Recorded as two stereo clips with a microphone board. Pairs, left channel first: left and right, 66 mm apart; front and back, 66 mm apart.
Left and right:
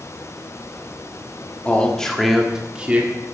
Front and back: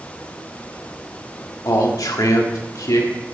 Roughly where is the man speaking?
Ahead left.